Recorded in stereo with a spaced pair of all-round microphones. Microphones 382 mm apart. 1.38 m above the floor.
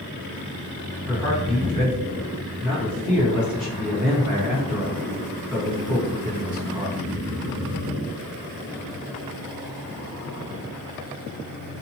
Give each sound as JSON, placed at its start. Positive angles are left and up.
{"t": 1.1, "sound": "a man speaking", "side_deg": -70, "distance_m": 1.7}